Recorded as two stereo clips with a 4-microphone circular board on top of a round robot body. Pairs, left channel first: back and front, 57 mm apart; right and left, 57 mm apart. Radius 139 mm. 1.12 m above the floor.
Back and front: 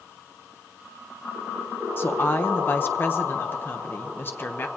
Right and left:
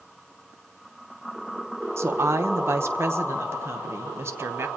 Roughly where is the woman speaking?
Behind left.